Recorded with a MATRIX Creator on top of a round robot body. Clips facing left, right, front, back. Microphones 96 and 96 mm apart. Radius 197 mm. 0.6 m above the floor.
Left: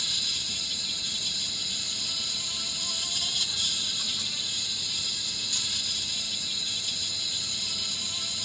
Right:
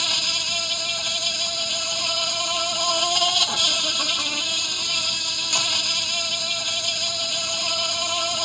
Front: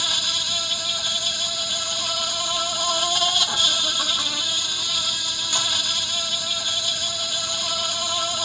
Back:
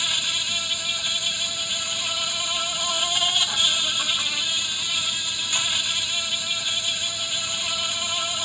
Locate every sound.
0.0 s an insect: 70° right